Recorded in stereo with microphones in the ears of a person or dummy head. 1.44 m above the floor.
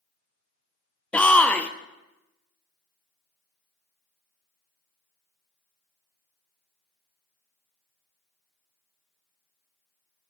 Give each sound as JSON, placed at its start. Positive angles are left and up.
{"t": 1.1, "sound": "a shout", "side_deg": 10, "distance_m": 0.6}